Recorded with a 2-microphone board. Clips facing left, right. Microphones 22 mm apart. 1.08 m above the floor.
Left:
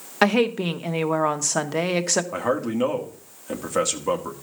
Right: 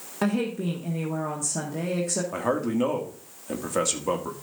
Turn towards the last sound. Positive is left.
turn(degrees=5)  # may be behind; listen again after turning